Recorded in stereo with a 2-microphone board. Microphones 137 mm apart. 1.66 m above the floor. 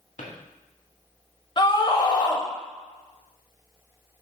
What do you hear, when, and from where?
0.2 s a drawer: 65° left (ahead or behind), 2 m
1.6 s a scream: 35° left (ahead or behind), 0.8 m